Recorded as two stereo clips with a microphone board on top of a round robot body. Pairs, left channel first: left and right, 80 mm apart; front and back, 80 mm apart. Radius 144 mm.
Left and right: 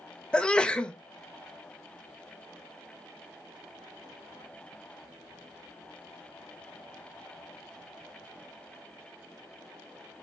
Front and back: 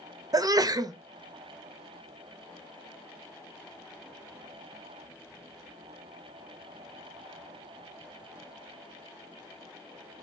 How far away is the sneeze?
About 0.6 m.